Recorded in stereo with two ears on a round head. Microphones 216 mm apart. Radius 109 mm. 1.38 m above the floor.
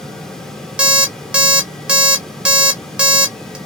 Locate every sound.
0.8 s an alarm clock: 5° right (ahead or behind), 0.6 m